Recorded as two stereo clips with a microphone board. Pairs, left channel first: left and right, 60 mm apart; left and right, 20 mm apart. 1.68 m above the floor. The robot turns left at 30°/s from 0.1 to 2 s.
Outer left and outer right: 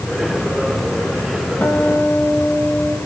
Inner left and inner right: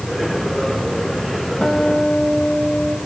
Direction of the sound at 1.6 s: 40° left (ahead or behind).